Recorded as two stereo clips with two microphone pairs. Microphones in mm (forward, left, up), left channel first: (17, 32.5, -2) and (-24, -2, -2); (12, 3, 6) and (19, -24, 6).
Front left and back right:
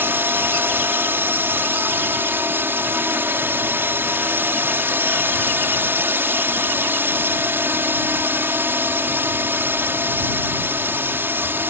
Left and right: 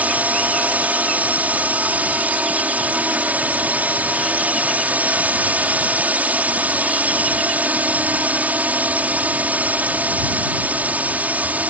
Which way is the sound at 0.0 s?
95° right.